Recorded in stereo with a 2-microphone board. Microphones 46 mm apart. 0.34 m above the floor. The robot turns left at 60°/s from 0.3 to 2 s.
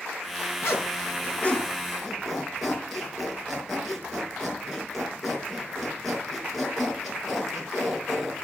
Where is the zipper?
75° left (ahead or behind), 4.5 m; by 8.4 s centre (ahead or behind), 4.5 m.